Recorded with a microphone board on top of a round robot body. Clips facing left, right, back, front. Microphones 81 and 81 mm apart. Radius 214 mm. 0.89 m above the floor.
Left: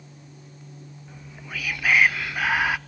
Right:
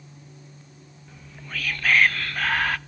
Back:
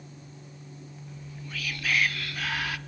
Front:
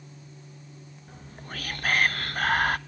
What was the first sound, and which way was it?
Whispering, 15° left.